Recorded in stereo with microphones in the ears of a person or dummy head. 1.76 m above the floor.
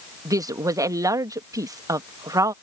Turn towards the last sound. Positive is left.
turn(degrees=-15)  # may be behind; listen again after turning